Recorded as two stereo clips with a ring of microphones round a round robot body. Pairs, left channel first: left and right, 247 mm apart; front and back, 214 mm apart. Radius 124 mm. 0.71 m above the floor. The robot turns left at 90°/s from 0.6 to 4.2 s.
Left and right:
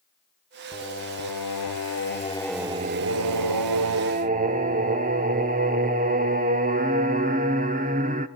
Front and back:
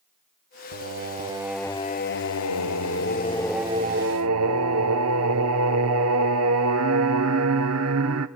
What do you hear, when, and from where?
0.7 s singing: 165° left, 0.9 m; by 8.3 s 150° right, 0.9 m